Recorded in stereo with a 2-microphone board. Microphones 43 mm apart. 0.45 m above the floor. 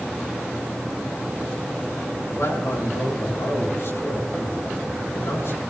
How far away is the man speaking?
About 5.5 m.